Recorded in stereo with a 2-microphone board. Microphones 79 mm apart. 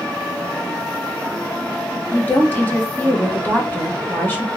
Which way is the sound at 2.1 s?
25° left (ahead or behind).